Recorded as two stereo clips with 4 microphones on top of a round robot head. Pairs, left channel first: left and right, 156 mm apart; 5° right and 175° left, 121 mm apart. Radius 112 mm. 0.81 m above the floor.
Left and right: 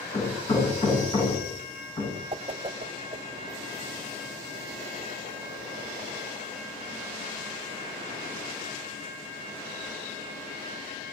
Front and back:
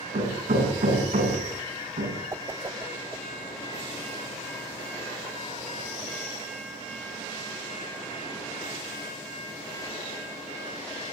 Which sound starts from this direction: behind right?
A whoosh, at 2.3 s.